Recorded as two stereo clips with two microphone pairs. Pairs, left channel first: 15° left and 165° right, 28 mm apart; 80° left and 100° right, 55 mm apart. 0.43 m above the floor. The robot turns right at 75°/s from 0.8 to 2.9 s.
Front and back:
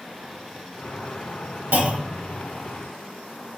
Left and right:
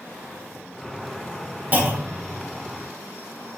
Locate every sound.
1.7 s a clunk: 160° right, 2 m; by 2.3 s 115° right, 2 m